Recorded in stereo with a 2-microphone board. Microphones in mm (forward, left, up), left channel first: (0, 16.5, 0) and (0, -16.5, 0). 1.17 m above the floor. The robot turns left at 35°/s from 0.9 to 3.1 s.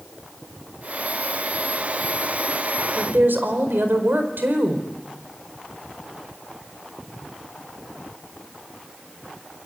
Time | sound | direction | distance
3.0 | a woman speaking | 85° right | 4.5 m